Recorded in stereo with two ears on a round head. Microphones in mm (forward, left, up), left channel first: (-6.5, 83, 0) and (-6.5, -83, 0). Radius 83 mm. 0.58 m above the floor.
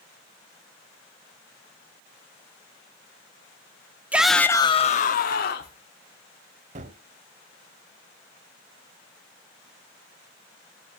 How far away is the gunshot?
About 0.7 m.